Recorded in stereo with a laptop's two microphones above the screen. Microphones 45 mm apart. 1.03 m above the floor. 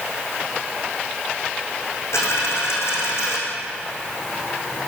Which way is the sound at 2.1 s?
80° left.